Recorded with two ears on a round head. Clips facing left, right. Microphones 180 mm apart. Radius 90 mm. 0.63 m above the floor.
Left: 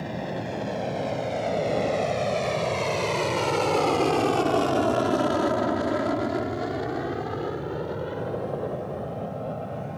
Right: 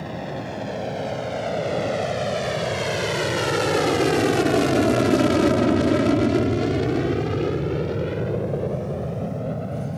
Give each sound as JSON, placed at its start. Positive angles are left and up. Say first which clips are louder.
{"t": 0.0, "sound": "an aircraft", "louder": "right 1 dB", "side_deg": 0}